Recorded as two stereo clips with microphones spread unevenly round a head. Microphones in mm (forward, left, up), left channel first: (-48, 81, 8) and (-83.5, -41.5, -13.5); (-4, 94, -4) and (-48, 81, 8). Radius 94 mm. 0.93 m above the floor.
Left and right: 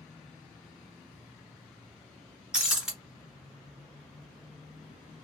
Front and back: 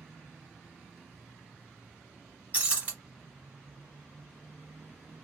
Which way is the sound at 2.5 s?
160° left.